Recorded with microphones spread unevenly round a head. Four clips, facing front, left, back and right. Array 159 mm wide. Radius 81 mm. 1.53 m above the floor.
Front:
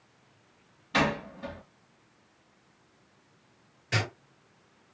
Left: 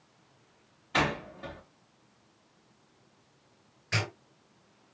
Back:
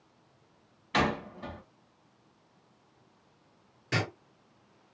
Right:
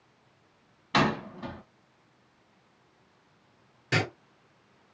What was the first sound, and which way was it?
A door slam, 90° right.